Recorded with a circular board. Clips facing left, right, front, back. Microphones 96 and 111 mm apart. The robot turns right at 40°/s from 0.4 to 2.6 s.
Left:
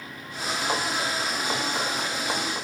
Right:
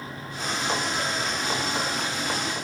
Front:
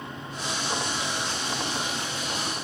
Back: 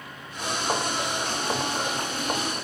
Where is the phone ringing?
No phone ringing in this recording.